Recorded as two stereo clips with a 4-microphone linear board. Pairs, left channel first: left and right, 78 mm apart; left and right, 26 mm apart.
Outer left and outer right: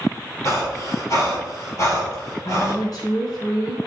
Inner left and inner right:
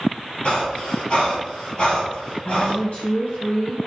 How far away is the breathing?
About 4.5 m.